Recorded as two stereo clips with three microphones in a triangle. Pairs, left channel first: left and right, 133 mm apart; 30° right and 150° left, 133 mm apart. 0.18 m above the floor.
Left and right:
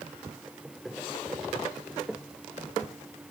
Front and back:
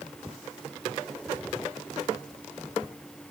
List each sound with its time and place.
Only background noise.